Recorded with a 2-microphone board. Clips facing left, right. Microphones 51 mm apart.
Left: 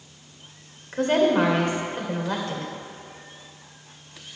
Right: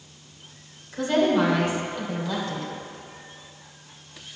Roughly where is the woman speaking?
Left.